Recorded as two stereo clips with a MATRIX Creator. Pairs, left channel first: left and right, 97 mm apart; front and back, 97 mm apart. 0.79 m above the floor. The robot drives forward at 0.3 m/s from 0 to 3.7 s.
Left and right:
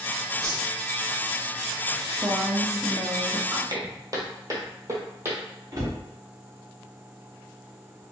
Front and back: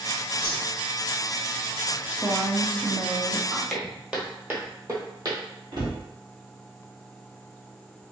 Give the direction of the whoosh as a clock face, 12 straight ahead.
2 o'clock.